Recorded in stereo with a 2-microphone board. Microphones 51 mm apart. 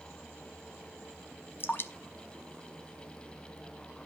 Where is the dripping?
45° left (ahead or behind), 0.7 m.